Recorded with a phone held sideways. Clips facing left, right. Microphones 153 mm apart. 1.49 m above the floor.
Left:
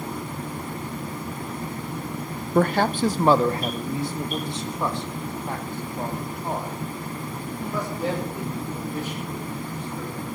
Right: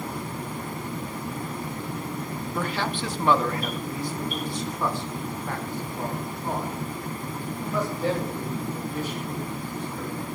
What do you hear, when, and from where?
2.5 s a man speaking: 60° left (ahead or behind), 0.7 m; by 10.3 s 15° left (ahead or behind), 8 m